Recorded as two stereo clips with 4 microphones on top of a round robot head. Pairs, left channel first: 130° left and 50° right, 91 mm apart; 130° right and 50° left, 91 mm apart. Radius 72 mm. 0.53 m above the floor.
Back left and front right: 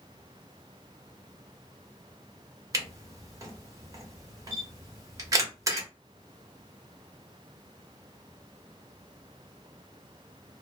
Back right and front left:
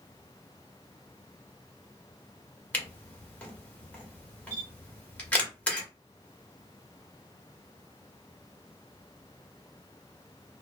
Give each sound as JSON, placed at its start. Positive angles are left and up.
{"t": 2.7, "sound": "a camera shutter", "azimuth_deg": -65, "distance_m": 1.3}